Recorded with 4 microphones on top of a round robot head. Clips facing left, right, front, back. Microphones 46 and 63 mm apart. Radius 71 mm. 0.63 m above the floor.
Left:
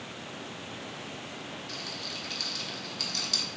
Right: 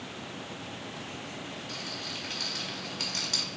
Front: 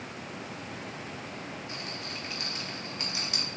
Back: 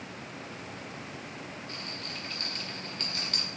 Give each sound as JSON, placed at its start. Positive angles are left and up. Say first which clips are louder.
{"t": 1.7, "sound": "a rattle", "louder": "right 1 dB, front 2 dB", "azimuth_deg": -65, "distance_m": 1.2}